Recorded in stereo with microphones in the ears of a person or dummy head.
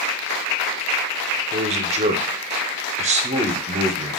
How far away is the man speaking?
About 0.8 m.